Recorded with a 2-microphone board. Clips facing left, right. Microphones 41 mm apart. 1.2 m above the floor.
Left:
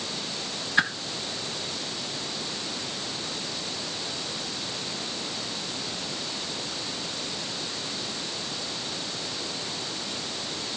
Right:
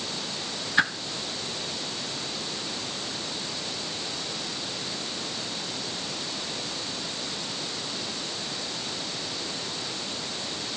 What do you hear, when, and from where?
0.8 s a whoosh: 5° left (ahead or behind), 1.5 m